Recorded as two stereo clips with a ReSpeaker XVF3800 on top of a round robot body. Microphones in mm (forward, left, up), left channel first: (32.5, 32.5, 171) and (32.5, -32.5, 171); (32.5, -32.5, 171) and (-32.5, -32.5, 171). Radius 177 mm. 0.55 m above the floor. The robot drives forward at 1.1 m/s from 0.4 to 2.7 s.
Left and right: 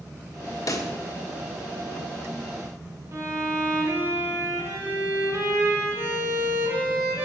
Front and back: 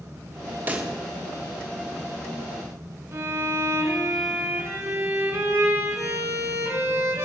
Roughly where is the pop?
Behind left.